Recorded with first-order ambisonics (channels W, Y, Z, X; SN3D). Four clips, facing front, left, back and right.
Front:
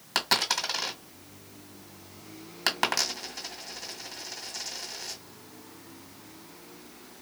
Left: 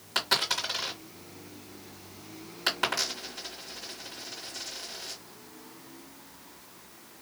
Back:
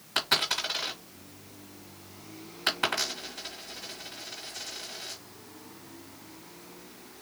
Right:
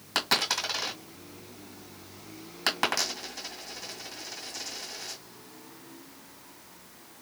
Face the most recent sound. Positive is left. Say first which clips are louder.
# right 1 dB, front 1 dB
turn(degrees=-25)